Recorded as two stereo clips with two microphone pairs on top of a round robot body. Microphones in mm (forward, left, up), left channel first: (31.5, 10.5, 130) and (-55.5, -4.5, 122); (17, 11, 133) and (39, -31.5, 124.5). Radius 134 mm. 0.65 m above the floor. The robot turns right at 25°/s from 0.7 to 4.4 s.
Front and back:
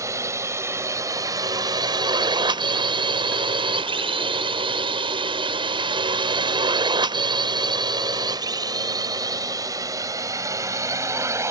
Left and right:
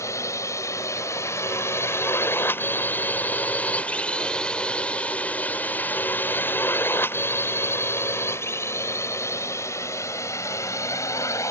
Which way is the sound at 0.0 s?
135° left.